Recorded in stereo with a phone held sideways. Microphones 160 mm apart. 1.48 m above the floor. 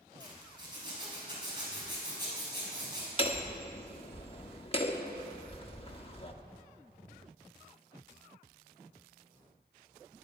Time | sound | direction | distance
0.2 | a zipper | 25° right (ahead or behind) | 5.5 m
3.2 | hammering | 35° left (ahead or behind) | 1.2 m